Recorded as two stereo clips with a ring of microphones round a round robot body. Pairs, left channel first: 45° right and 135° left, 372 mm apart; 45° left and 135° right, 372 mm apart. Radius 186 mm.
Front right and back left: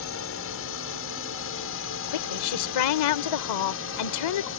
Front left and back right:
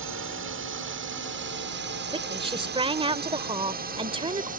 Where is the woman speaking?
60° right.